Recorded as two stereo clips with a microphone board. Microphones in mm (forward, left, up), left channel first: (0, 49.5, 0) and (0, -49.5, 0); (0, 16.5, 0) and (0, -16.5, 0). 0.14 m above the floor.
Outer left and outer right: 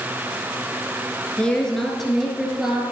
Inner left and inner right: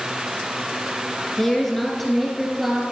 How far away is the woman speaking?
About 1.7 m.